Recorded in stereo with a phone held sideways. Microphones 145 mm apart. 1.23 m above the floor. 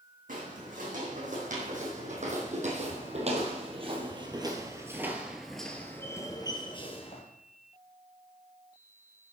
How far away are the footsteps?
About 4 m.